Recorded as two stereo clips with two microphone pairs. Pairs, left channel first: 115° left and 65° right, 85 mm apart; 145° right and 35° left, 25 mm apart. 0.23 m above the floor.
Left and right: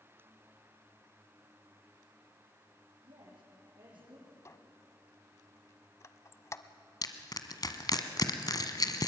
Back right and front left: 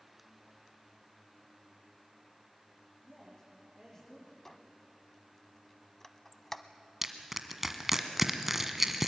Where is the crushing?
110° left, 1.4 m.